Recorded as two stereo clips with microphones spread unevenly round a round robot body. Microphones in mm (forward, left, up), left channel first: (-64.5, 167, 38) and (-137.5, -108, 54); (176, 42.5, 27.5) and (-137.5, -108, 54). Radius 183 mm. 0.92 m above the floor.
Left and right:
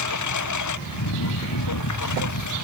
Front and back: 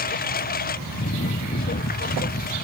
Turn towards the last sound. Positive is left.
turn(degrees=95)